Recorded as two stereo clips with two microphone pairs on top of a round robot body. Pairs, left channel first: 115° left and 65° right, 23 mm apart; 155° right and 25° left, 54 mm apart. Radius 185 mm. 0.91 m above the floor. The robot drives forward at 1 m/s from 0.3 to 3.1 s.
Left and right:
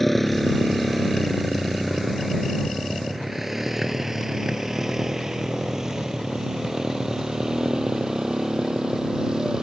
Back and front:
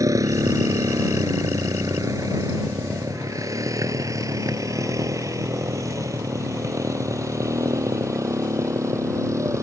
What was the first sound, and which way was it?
A motorcycle, 30° left.